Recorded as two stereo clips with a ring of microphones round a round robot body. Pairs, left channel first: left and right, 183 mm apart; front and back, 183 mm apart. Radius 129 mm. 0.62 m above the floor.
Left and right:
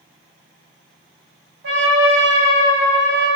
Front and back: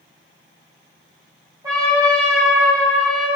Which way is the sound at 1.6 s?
105° right.